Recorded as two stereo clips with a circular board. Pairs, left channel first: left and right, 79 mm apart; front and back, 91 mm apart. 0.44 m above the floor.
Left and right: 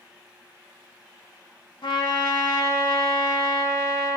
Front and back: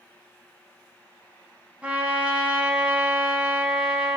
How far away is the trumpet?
About 0.8 m.